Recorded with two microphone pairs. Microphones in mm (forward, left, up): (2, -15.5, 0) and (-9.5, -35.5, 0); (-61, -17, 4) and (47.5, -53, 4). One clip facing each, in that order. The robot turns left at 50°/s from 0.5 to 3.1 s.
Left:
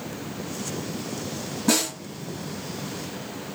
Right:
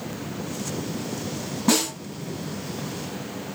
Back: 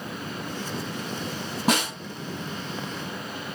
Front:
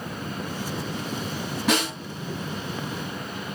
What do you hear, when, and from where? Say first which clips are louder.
1.7 s a snare drum: right 1 dB, even; 175° right, 1.5 m; by 1.9 s 170° left, 1.5 m